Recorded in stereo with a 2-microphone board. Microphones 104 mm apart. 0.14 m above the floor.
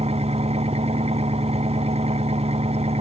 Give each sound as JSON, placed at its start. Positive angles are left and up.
{"t": 0.0, "sound": "an engine running", "side_deg": -85}